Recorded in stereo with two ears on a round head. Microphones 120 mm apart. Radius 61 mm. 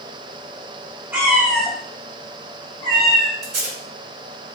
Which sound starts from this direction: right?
Tape being pulled, at 3.4 s.